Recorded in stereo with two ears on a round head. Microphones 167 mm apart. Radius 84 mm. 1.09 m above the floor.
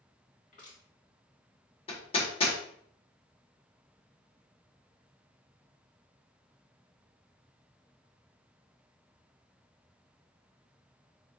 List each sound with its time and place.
0.5 s crushing: 45° left (ahead or behind), 2.5 m
1.9 s hammering: 30° left (ahead or behind), 1.3 m